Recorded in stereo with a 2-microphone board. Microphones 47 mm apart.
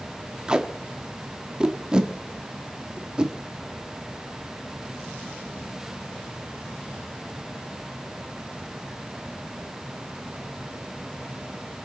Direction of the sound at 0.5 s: 20° right (ahead or behind).